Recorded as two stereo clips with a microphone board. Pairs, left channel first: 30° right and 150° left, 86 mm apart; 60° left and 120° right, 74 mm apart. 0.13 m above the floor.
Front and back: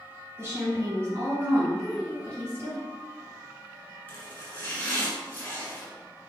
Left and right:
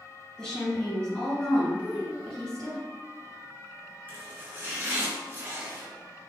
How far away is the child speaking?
About 1.1 m.